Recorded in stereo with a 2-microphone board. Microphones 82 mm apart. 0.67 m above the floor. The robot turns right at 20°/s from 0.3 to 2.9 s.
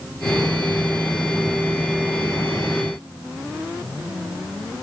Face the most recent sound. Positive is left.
No sound to turn to.